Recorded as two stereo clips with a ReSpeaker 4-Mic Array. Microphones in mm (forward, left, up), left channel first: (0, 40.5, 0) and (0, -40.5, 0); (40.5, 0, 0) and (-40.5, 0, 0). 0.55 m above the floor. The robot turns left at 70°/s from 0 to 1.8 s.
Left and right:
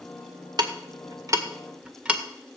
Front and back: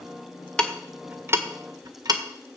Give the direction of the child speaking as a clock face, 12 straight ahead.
I don't hear a child speaking.